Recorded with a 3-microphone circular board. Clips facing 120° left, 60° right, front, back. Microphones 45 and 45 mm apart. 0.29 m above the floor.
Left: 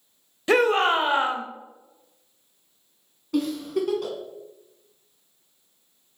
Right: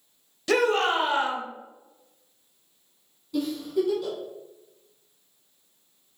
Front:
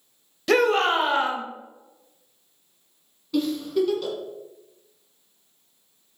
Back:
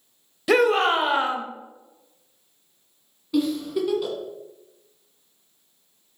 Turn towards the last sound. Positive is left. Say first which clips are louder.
# left 1 dB, even
turn(degrees=100)